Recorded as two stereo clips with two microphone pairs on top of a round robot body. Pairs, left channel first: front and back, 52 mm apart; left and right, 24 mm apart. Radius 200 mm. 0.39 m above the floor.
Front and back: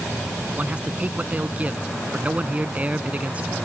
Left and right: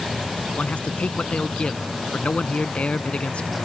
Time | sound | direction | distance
0.6 | a man speaking | 115° left | ?